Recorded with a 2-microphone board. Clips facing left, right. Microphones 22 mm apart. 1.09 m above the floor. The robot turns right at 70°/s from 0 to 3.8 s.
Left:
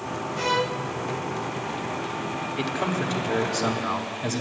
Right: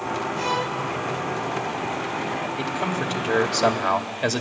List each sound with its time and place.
0.4 s a violin: centre (ahead or behind), 0.9 m; by 0.8 s 20° left (ahead or behind), 0.9 m
2.6 s a man speaking: 155° left, 1.9 m; by 4.4 s 120° right, 1.9 m